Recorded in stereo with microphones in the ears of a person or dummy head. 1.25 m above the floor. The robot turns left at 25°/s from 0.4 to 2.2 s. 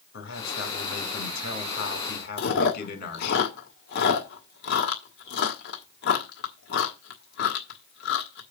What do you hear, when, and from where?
0.1 s a man speaking: 110° left, 3.5 m; by 3.4 s 65° left, 3.5 m
2.4 s chewing: 55° left (ahead or behind), 1.6 m